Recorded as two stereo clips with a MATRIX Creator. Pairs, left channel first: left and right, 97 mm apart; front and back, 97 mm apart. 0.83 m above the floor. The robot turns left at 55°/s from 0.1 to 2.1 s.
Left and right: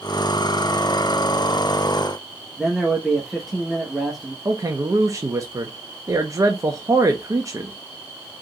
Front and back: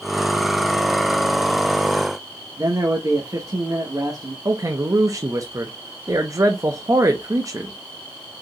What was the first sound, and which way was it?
A man speaking, straight behind.